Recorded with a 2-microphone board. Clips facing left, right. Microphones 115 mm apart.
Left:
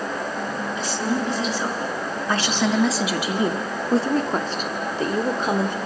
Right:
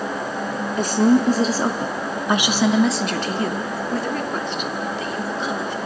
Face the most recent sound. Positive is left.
turn(degrees=50)  # may be behind; listen again after turning